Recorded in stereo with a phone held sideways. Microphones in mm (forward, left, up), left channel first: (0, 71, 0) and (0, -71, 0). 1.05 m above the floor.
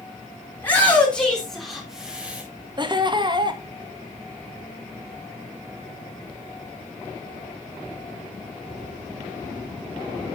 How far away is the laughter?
About 1.5 m.